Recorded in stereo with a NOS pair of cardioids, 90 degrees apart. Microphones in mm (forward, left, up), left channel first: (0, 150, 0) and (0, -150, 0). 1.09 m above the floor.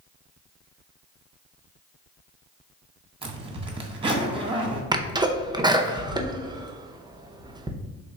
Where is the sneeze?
15° right, 0.5 m.